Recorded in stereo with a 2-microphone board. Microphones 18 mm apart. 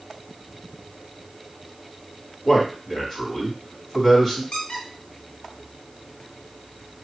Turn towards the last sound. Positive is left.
turn(degrees=75)  # may be behind; listen again after turning